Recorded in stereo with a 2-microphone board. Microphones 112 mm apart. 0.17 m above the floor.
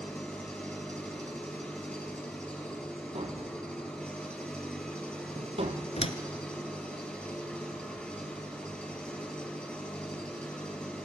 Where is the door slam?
60° left (ahead or behind), 1.4 m.